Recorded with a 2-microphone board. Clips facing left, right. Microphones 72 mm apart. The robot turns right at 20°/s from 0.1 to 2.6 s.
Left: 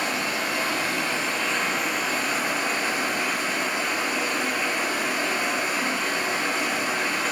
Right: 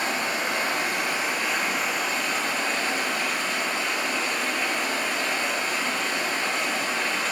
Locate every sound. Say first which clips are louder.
0.0 s running water: even; 35° right, 3 m; by 7.3 s 15° left, 3 m